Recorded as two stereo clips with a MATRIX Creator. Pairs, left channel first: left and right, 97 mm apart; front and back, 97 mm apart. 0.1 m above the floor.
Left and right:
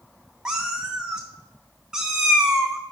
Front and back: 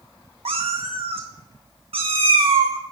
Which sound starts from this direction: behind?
A cat meowing, at 0.5 s.